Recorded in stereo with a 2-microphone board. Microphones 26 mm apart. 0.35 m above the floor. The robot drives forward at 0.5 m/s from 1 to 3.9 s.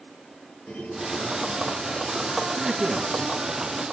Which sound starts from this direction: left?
A squeak, at 0.7 s.